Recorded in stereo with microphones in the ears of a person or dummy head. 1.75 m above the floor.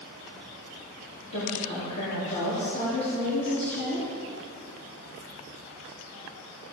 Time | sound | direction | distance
1.3 | a woman speaking | 45° left (ahead or behind) | 4 m